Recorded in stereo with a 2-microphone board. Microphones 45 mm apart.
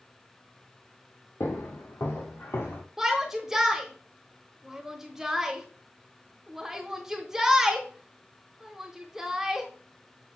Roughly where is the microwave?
No microwave in this recording.